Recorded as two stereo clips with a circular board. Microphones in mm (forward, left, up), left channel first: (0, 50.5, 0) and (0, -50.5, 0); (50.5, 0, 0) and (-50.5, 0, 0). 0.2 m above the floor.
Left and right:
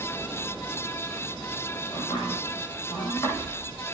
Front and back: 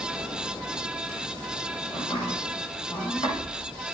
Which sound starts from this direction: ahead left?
Chopping, at 1.9 s.